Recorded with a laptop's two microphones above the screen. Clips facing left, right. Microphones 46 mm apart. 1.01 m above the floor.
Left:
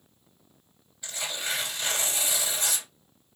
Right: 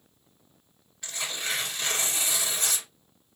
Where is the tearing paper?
60° right (ahead or behind), 2.0 m.